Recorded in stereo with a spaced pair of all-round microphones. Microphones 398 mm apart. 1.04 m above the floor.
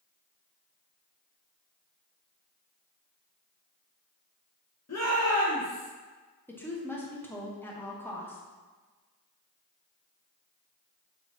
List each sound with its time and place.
4.9 s a shout: 40° left (ahead or behind), 0.7 m; by 5.9 s 50° left (ahead or behind), 1.2 m
6.5 s a woman speaking: 5° left (ahead or behind), 0.7 m